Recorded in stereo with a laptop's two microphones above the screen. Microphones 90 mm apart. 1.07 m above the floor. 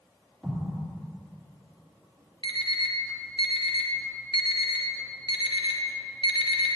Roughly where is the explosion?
Centre.